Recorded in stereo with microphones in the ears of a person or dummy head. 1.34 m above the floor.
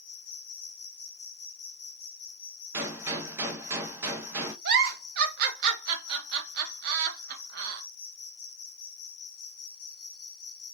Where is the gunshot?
10° right (ahead or behind), 1.0 m.